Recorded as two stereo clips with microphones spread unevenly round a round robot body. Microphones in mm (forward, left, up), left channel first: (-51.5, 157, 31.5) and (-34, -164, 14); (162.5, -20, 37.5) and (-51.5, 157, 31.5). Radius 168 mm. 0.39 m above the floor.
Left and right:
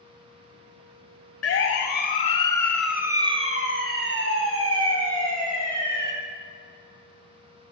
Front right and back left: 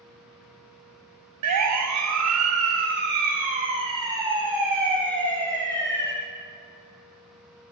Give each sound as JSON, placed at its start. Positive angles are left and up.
{"t": 1.4, "sound": "a siren", "azimuth_deg": 135, "distance_m": 2.5}